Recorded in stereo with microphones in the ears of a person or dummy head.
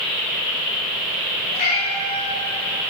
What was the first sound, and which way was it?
A cat meowing, 45° left (ahead or behind).